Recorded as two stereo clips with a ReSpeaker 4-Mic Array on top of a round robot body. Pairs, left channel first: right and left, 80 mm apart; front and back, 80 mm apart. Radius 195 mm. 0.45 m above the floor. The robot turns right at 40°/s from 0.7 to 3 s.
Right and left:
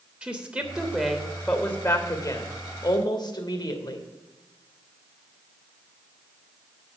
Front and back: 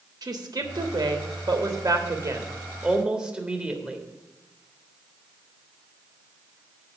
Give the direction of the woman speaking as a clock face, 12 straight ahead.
7 o'clock.